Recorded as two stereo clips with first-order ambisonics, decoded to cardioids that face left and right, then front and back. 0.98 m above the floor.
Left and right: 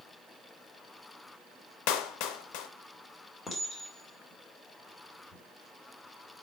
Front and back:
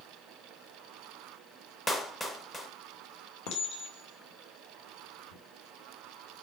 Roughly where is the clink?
Ahead.